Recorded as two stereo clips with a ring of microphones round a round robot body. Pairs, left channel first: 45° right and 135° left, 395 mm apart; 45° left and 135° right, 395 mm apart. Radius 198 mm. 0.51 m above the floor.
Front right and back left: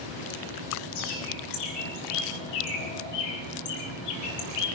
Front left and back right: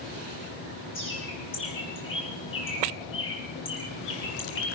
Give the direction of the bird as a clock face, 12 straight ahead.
1 o'clock.